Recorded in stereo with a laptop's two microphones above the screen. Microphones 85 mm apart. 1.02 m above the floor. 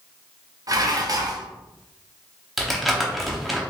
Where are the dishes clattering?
45° right (ahead or behind), 0.7 m.